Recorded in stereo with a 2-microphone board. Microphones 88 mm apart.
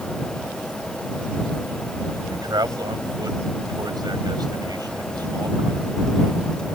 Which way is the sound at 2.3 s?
50° right (ahead or behind).